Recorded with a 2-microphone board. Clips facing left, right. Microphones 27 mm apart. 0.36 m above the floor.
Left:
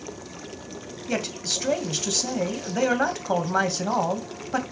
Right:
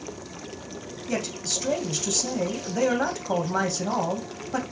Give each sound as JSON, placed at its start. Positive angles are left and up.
{"t": 1.1, "sound": "a man speaking", "side_deg": 25, "distance_m": 1.8}